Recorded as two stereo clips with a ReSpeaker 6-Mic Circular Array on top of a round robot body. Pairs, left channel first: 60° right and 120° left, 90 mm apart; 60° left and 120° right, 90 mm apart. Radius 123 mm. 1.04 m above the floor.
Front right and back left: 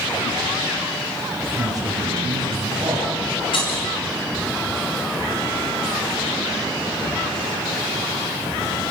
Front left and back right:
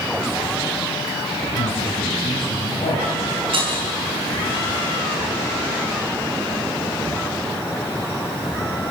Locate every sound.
1.6 s a man speaking: 70° left, 6 m
3.5 s breaking glass: 90° right, 5 m